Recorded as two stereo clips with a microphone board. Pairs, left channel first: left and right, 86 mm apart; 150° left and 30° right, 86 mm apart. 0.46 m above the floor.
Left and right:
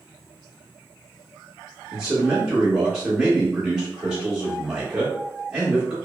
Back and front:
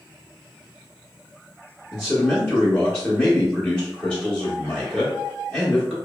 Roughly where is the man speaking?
Behind.